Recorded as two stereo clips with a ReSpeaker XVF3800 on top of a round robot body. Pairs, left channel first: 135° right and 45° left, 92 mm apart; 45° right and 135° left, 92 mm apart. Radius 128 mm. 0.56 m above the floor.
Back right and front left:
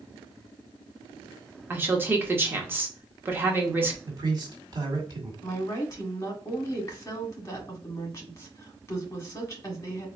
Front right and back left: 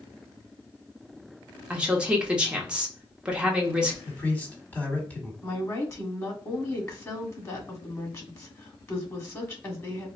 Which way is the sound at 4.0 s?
25° left.